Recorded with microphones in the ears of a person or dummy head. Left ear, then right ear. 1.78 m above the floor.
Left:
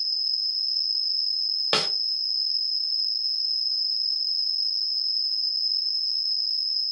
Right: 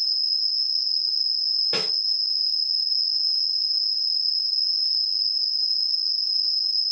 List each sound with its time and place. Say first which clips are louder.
0.0 s an insect: right 3 dB; 75° right (ahead or behind), 1.0 m
1.7 s a snare drum: left 2 dB; 50° left (ahead or behind), 0.8 m